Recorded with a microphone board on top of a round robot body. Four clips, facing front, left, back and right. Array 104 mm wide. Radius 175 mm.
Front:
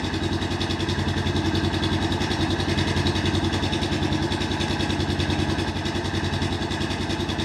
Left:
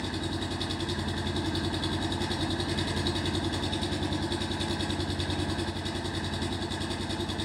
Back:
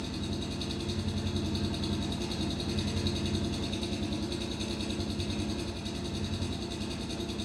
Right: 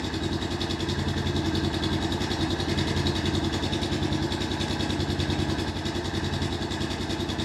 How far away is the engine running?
About 1.4 m.